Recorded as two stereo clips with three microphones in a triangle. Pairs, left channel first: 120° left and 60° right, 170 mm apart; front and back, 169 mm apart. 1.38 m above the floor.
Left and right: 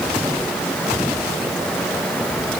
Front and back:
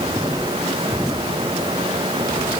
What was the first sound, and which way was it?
Only background noise.